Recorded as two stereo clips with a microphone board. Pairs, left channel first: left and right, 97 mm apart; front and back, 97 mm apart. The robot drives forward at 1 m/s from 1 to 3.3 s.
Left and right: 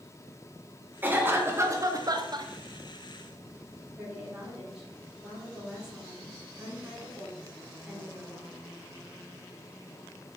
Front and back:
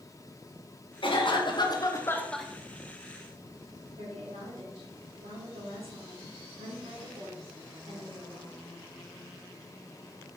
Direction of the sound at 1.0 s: 20° right.